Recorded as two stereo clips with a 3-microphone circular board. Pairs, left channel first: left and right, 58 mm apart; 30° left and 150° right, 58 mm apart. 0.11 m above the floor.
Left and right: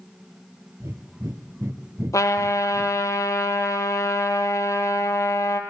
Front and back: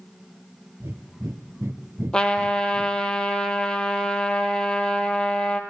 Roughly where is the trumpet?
Left.